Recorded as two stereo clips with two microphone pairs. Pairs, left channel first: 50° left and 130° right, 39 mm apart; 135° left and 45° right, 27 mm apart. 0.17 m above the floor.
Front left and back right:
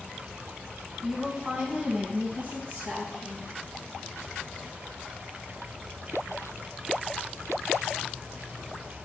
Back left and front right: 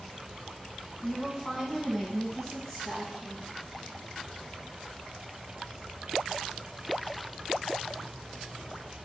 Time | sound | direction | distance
1.0 | a woman speaking | 170° right | 1.4 m